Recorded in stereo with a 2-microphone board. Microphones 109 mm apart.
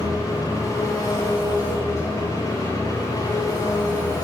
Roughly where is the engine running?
Left.